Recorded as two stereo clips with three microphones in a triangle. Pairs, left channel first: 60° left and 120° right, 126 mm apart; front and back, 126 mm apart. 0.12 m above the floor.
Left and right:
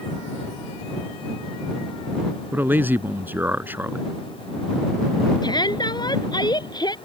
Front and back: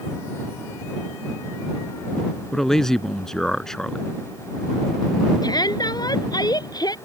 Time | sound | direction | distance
2.5 | a man speaking | 80° right | ?
5.4 | a shout | 35° left | ?